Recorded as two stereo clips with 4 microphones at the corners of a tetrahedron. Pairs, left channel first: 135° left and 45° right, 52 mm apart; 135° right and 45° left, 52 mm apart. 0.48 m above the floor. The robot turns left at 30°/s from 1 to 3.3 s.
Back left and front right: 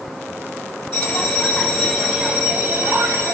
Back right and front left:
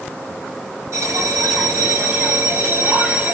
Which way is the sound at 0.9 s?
65° left.